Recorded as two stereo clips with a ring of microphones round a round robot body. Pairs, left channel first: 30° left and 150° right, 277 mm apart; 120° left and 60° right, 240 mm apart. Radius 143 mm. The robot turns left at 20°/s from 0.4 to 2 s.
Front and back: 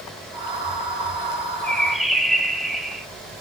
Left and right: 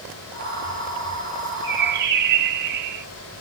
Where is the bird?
55° right, 1.8 m; by 3.0 s 60° right, 1.8 m.